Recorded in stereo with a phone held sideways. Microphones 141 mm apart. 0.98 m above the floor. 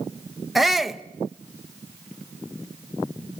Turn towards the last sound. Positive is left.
turn(degrees=0)  # may be behind; listen again after turning